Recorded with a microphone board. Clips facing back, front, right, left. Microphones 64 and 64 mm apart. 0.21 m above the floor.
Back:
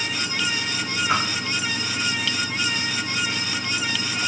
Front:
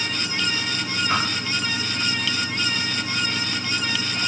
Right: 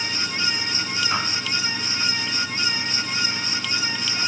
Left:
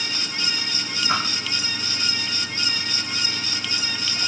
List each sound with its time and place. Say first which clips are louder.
1.1 s a whoosh: back 1 dB, left 3 dB; 100° left, 2 m